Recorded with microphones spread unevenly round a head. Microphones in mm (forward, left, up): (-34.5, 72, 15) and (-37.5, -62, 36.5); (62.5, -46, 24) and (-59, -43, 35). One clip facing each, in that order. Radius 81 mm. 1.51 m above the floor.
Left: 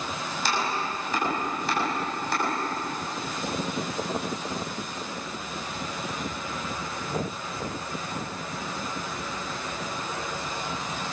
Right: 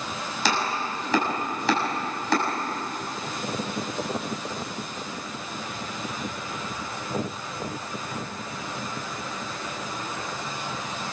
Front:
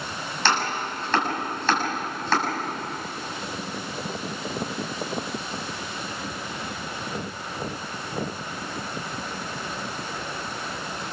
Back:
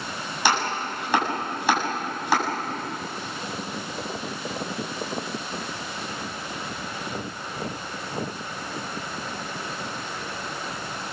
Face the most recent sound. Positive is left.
turn(degrees=-105)